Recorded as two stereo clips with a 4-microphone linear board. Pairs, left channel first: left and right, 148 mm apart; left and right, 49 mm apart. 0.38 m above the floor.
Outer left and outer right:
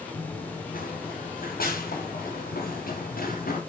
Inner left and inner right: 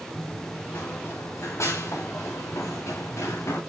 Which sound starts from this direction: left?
Running footsteps, at 0.1 s.